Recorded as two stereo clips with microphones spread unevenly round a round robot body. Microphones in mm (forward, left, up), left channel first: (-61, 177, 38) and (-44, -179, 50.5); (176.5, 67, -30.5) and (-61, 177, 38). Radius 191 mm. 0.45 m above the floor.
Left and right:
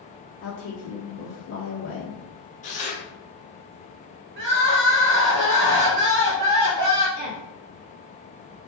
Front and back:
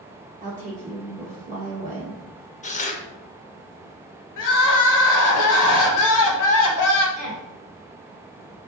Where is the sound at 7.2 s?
155° right, 1.0 m.